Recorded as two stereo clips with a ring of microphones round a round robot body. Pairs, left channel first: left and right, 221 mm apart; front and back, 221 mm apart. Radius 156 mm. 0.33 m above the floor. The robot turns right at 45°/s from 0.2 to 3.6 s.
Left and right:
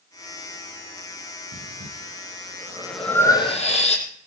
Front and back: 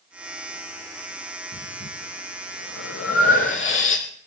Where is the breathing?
65° right, 4.5 m; by 4.0 s 30° left, 4.5 m.